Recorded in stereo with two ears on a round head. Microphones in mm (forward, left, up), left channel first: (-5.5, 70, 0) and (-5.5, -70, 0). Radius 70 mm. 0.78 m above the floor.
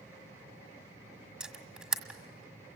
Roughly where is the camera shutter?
Centre.